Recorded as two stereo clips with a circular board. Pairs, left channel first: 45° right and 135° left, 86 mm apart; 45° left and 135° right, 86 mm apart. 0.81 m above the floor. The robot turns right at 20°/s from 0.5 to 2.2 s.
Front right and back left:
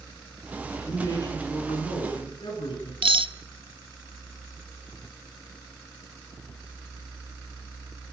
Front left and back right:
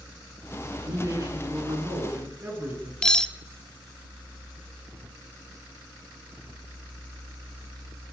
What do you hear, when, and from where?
0.6 s a man speaking: 100° right, 9 m; by 2.9 s 70° right, 9 m
3.0 s cutlery clinking: 125° left, 0.9 m